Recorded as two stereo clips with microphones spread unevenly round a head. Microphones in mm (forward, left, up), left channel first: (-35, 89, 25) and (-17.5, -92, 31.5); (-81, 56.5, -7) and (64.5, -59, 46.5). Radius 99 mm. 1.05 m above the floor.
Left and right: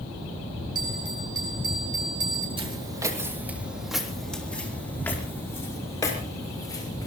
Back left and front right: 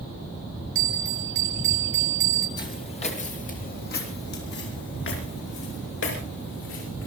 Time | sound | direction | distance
0.8 | a bell | 15° right | 6.5 m
2.6 | footsteps | 145° right | 2.5 m